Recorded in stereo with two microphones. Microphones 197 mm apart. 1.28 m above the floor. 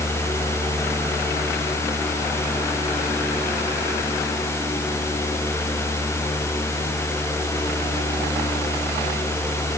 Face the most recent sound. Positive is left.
No sound to turn to.